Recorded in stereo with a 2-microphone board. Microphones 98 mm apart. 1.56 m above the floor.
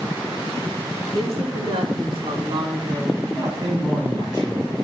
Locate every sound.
1.1 s a woman speaking: 75° right (ahead or behind), 3.5 m; by 3.1 s 55° right (ahead or behind), 3.5 m
3.2 s a man speaking: 50° right (ahead or behind), 6 m